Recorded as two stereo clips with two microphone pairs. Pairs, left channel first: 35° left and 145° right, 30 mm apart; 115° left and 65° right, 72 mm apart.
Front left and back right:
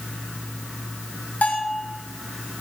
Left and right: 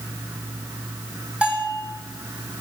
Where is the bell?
5° left, 4 m.